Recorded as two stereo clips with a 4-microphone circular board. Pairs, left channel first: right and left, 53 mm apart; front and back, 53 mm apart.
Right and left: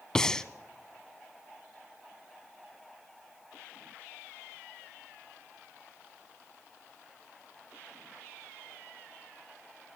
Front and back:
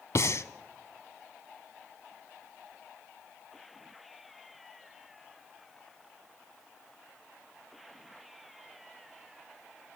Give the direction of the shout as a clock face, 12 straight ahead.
I don't hear a shout.